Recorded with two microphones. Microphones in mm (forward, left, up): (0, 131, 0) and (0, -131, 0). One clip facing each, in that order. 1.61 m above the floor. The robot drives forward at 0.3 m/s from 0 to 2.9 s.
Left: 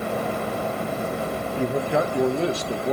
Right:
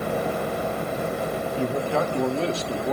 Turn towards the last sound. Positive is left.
turn(degrees=15)  # may be behind; listen again after turning